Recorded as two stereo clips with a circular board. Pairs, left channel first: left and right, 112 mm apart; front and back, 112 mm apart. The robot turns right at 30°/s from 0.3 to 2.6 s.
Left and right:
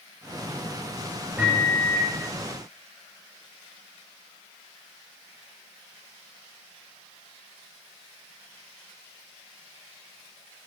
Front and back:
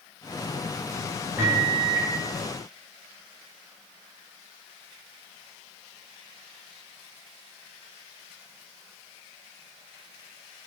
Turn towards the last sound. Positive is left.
turn(degrees=-115)